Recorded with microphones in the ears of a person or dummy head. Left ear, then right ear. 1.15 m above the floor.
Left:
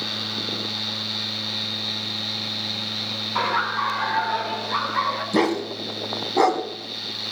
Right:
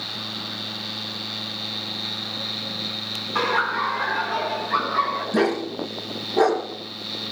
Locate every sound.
3.4 s laughter: 10° left (ahead or behind), 2 m; by 5.2 s 35° left (ahead or behind), 4 m
5.3 s a dog barking: 65° left (ahead or behind), 2.5 m